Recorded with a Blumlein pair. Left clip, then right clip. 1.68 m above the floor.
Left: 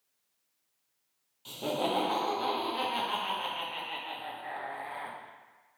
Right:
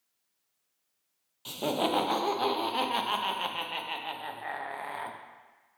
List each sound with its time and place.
1.4 s laughter: 20° right, 0.6 m